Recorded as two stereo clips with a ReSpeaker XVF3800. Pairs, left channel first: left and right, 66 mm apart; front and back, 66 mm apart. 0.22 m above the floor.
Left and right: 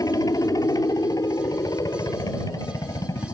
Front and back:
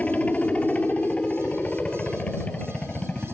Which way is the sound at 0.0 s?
70° left.